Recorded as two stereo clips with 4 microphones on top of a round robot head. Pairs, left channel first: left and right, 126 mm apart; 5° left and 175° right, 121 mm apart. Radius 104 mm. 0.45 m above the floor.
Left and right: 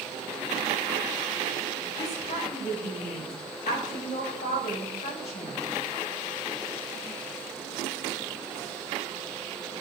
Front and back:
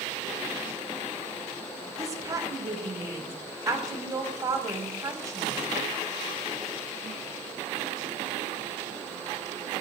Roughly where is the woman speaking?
Behind left.